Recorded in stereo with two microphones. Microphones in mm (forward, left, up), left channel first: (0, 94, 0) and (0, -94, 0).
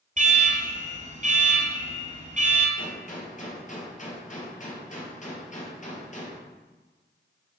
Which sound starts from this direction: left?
A gunshot, at 2.8 s.